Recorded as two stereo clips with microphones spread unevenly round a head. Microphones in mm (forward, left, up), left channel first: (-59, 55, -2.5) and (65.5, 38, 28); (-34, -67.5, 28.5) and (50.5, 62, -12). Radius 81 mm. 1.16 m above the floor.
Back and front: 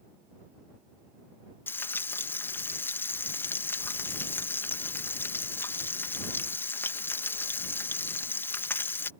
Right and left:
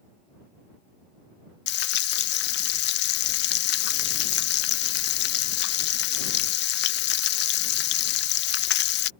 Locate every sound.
1.7 s frying: 105° right